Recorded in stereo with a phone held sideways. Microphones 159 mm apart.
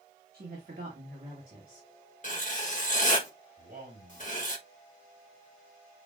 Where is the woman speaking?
70° right (ahead or behind), 1.5 m; by 1.9 s 75° right (ahead or behind), 2.5 m.